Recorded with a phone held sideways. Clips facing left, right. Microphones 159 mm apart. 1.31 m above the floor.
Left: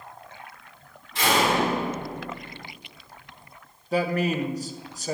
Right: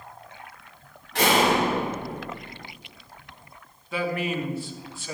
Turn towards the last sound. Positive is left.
turn(degrees=40)  # may be behind; listen again after turning